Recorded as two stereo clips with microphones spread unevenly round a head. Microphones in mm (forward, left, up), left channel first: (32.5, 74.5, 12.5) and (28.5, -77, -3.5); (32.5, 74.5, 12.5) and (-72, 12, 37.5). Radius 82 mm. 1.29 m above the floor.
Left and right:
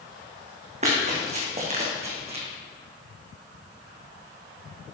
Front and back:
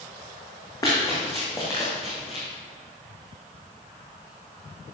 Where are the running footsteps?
45° right, 4 m.